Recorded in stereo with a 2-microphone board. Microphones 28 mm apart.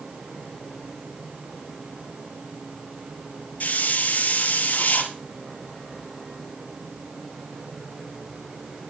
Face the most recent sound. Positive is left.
turn(degrees=65)  # may be behind; listen again after turning